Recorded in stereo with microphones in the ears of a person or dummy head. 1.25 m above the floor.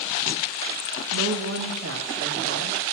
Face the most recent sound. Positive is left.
turn(degrees=-70)  # may be behind; listen again after turning